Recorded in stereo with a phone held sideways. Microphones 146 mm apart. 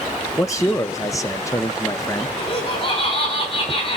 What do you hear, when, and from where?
0.4 s a man speaking: 20° left (ahead or behind), 1.0 m
2.4 s laughter: 45° left (ahead or behind), 6 m